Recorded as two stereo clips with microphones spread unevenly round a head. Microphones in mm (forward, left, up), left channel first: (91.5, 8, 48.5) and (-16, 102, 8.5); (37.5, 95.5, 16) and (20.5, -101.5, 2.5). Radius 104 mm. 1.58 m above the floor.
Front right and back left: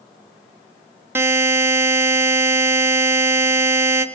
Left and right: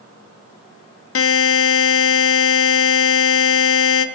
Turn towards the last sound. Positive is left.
turn(degrees=65)